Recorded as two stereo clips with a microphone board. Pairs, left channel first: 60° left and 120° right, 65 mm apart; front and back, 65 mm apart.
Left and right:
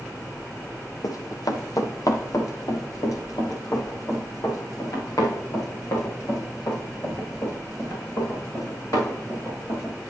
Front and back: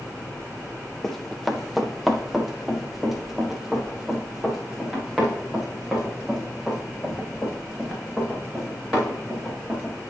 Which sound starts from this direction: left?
Running footsteps, at 1.0 s.